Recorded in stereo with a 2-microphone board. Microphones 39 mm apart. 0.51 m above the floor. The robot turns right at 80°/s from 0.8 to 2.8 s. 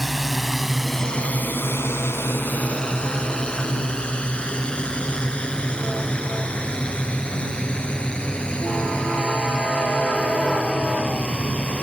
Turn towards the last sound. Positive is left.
turn(degrees=20)  # may be behind; listen again after turning